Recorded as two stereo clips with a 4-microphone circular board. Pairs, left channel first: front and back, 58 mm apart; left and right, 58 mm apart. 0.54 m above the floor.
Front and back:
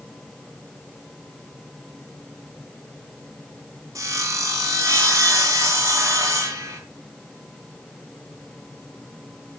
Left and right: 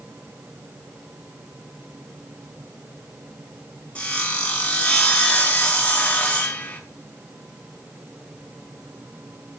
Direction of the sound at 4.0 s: 160° left.